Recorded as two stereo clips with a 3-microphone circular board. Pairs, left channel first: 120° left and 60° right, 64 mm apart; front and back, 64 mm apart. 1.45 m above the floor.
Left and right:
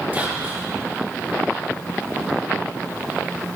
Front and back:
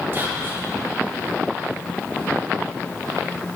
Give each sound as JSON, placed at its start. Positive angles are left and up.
{"t": 0.1, "sound": "whispering", "azimuth_deg": -125, "distance_m": 2.0}